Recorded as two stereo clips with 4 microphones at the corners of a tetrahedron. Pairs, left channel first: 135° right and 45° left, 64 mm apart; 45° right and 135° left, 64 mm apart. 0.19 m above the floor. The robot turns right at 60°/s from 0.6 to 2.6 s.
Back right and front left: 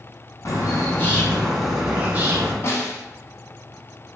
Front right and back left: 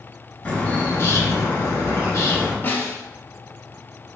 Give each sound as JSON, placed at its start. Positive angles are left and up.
{"t": 0.5, "sound": "a bird", "azimuth_deg": -105, "distance_m": 0.7}
{"t": 2.6, "sound": "a snare drum", "azimuth_deg": -95, "distance_m": 0.6}